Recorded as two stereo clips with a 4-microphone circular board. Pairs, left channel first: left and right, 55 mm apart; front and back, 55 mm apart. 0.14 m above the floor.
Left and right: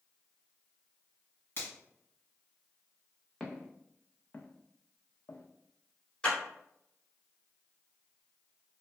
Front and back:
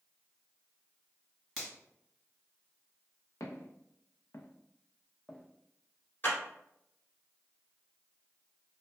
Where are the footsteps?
10° left, 1.0 m; by 6.4 s 120° left, 0.9 m.